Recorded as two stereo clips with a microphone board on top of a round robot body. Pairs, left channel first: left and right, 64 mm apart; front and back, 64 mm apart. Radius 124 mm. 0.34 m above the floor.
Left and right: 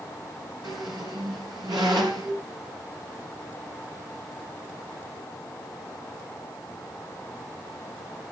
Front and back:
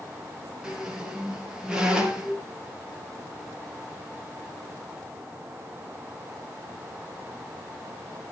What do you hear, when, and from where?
0.6 s a squeak: 100° right, 3 m